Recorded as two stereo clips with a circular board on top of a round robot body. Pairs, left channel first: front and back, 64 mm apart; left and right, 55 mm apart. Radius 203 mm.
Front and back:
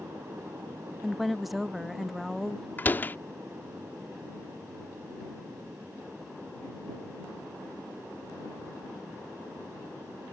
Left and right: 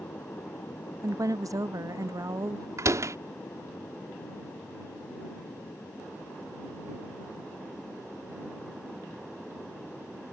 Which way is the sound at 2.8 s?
60° right.